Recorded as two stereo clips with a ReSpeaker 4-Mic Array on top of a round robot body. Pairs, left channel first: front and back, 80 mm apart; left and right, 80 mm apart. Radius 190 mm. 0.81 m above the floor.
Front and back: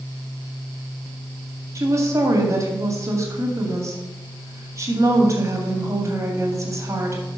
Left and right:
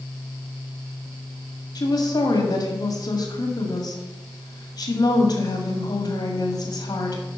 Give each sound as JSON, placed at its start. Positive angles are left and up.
{"t": 1.8, "sound": "a woman speaking", "azimuth_deg": 125, "distance_m": 2.0}